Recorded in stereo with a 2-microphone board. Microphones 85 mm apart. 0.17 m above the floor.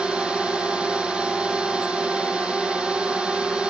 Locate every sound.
0.0 s a drone: 10° right (ahead or behind)